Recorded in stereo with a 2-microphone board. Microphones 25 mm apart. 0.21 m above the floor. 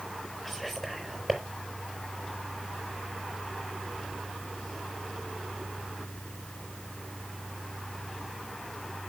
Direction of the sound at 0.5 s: Centre (ahead or behind).